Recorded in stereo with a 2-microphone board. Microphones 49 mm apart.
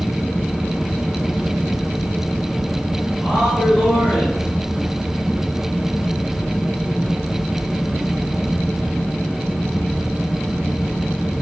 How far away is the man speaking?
About 1.9 m.